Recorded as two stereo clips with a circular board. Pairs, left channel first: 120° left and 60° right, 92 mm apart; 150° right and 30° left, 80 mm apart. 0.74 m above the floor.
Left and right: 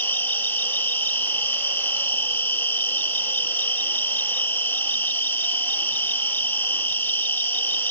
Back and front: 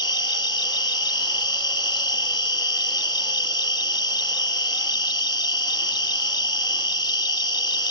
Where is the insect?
170° right, 1.5 m.